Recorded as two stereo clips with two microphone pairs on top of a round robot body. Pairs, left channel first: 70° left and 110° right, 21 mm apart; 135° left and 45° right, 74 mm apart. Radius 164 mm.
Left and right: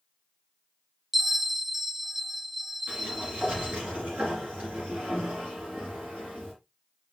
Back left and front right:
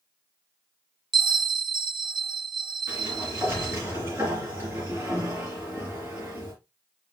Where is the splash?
I don't hear a splash.